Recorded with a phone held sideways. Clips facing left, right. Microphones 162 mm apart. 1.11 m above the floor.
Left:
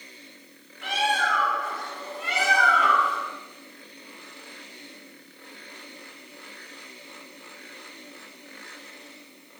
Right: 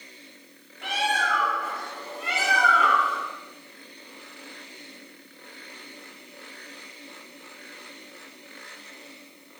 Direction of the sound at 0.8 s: 40° right (ahead or behind).